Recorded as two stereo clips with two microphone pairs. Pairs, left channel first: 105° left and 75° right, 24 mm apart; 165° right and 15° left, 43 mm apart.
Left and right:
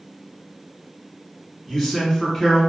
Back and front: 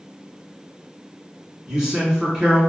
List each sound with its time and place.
1.7 s a man speaking: 55° left, 1.3 m